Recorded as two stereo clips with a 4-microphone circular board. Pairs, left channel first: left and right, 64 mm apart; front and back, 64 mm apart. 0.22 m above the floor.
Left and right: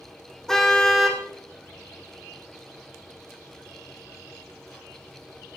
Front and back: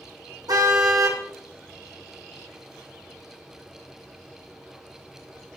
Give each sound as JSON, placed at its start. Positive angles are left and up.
{"t": 0.5, "sound": "a car horn", "azimuth_deg": 175, "distance_m": 4.0}